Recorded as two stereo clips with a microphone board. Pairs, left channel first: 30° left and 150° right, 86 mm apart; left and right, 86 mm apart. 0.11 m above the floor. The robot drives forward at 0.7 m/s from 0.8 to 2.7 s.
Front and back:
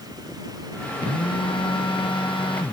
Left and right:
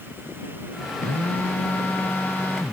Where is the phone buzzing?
20° left.